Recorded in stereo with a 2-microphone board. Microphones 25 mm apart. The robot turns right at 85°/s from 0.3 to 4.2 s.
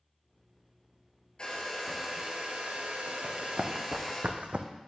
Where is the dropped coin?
I don't hear a dropped coin.